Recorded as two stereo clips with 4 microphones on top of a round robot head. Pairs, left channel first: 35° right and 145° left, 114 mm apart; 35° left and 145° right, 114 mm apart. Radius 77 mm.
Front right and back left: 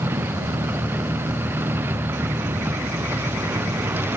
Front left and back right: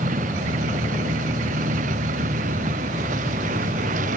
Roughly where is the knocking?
I don't hear knocking.